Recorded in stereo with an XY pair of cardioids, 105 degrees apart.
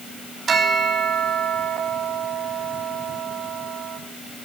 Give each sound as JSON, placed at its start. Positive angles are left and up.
{"t": 0.5, "sound": "a bell", "azimuth_deg": -45, "distance_m": 4.0}